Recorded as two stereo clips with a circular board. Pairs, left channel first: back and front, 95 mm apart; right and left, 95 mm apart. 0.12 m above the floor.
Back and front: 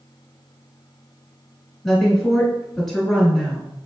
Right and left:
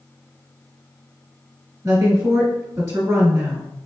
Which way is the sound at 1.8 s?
95° left.